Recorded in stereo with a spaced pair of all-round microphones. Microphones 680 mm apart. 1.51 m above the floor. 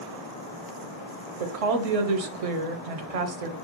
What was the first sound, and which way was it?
A woman speaking, 60° right (ahead or behind).